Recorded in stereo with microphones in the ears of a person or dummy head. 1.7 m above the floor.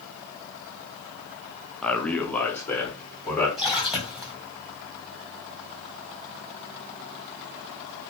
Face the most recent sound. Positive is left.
turn(degrees=0)  # may be behind; listen again after turning